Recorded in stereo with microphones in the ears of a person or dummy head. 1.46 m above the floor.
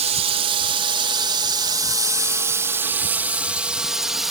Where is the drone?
35° right (ahead or behind); by 4.3 s centre (ahead or behind).